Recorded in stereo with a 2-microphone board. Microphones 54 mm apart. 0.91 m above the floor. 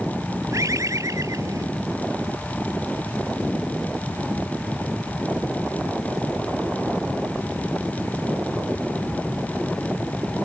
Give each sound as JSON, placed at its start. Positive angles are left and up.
{"t": 0.5, "sound": "a bird", "side_deg": -65}